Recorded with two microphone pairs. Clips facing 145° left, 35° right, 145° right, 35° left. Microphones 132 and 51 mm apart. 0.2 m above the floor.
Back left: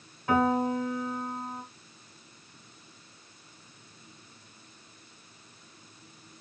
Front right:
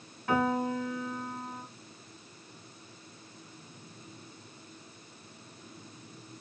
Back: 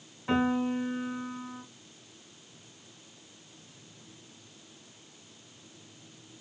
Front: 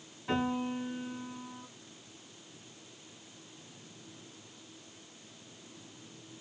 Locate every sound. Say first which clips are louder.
0.3 s a piano: back left 3 dB, back 5 dB; 155° right, 1.7 m